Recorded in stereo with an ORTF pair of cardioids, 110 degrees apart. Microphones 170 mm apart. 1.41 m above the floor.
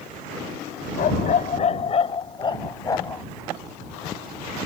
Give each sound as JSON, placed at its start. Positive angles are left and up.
{"t": 1.0, "sound": "a dog barking", "azimuth_deg": 60}